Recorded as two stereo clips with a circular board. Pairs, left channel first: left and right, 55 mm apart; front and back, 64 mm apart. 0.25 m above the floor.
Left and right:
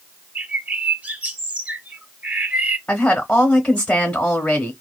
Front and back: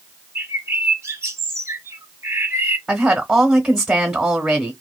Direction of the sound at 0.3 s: 145° right.